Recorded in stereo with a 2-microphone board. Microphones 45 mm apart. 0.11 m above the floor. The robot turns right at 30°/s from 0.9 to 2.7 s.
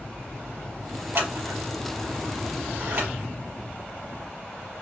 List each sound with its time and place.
1.1 s scissors: 60° right (ahead or behind), 3.5 m; by 3.1 s 50° right (ahead or behind), 3.5 m